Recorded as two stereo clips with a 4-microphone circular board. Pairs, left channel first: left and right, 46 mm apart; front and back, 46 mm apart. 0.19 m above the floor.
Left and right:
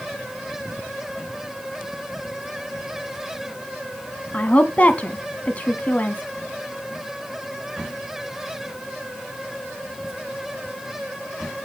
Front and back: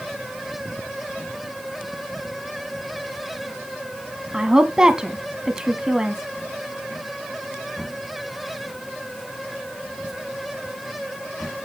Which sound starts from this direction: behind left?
A woman speaking, at 4.3 s.